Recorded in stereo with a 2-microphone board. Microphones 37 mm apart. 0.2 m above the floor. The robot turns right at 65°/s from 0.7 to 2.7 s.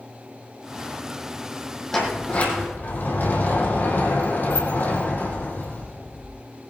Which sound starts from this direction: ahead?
A sliding door, at 1.9 s.